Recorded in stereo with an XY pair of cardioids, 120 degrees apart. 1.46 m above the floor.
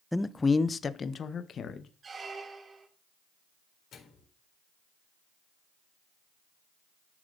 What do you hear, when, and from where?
0.1 s a man speaking: 5° left, 0.6 m; by 1.9 s 45° left, 1.7 m
2.0 s a squeak: 30° right, 2.5 m
3.9 s a microwave: 50° left, 4 m